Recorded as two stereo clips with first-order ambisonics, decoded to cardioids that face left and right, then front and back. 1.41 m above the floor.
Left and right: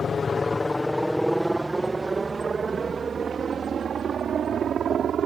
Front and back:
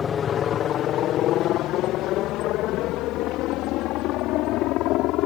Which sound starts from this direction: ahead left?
A helicopter, at 0.0 s.